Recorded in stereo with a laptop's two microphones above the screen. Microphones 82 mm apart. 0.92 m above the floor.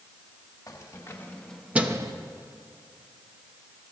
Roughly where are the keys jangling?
Left.